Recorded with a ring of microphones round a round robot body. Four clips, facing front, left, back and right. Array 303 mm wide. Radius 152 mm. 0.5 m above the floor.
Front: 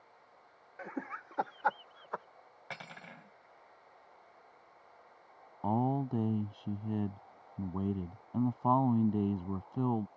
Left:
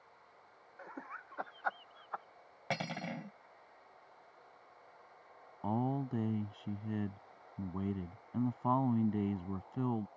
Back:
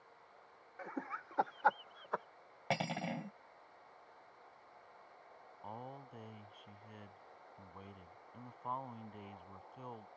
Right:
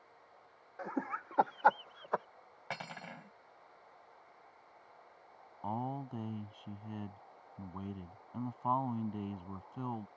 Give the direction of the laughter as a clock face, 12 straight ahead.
2 o'clock.